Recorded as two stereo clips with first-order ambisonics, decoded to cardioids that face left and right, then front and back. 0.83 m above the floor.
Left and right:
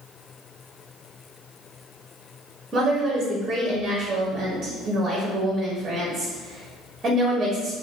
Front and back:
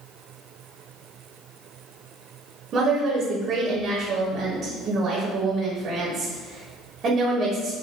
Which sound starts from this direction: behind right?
A woman speaking, at 2.7 s.